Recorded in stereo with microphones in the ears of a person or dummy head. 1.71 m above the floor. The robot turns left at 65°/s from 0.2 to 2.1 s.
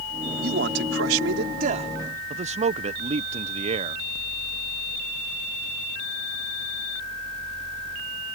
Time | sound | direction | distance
0.4 | a man speaking | 55° right | ?
2.3 | a man speaking | 30° right (ahead or behind) | ?